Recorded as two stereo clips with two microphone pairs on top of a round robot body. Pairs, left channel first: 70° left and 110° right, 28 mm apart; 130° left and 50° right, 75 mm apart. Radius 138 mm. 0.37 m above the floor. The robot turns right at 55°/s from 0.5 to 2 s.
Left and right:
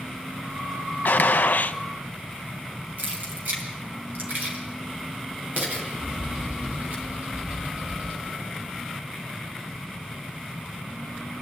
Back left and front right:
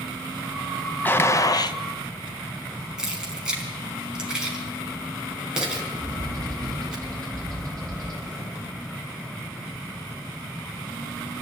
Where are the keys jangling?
130° right, 4 m.